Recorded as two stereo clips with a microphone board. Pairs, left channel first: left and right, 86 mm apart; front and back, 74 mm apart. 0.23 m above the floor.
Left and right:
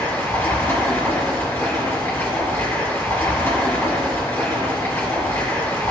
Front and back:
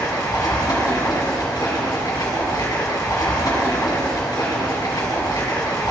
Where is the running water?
25° left, 3 m.